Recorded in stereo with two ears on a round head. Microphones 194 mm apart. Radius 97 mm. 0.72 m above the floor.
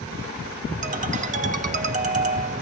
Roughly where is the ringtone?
Right.